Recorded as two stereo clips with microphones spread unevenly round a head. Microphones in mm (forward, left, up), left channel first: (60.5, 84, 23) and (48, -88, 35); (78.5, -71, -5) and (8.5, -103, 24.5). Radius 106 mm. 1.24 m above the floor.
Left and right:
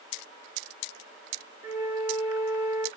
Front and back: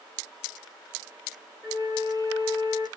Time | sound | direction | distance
1.6 | a flute | 110° left | 1.3 m